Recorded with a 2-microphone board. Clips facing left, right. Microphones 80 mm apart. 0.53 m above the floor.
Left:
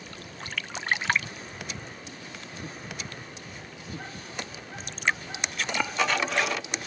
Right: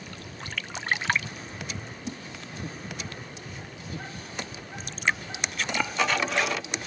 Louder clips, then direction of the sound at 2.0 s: Right 8 dB; 60° right (ahead or behind).